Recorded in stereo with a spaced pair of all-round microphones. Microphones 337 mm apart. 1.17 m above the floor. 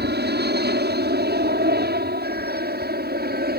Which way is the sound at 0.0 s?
30° right (ahead or behind).